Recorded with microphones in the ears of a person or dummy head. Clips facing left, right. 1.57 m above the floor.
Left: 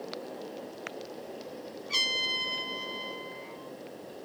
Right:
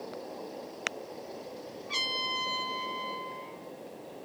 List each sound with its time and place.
1.9 s a trumpet: 10° left (ahead or behind), 0.8 m